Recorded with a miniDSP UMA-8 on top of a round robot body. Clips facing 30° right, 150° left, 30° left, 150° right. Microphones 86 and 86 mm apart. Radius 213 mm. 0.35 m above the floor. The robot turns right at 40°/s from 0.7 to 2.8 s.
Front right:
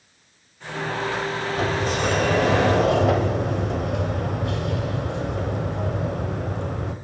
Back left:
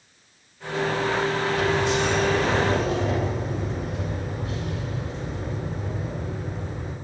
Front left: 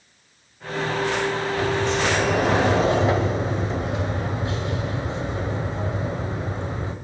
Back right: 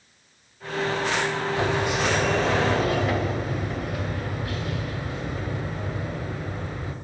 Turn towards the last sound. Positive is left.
turn(degrees=-35)